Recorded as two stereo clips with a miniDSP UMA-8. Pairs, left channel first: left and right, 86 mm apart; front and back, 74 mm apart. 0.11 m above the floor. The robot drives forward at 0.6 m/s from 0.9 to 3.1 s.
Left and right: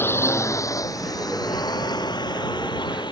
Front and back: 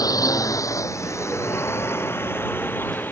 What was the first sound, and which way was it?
A drone, 30° left.